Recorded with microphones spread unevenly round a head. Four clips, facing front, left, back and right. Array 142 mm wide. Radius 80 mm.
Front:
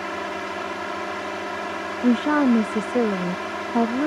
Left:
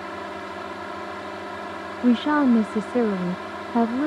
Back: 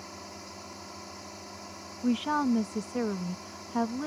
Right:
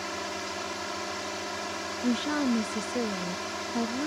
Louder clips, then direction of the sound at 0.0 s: Left 2 dB, front 16 dB; 10° left.